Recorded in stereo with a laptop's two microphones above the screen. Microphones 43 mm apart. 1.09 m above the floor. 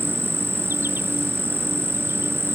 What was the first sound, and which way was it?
An insect, 65° right (ahead or behind).